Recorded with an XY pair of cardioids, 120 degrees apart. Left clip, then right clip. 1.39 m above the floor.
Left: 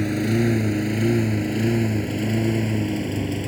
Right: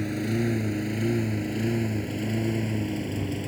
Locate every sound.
0.0 s a lawn mower: 35° left; by 3.5 s 30° left